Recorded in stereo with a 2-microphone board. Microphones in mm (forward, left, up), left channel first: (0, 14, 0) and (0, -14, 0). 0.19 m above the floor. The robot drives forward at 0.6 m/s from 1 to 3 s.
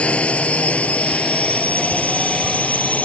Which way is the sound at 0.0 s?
50° left (ahead or behind).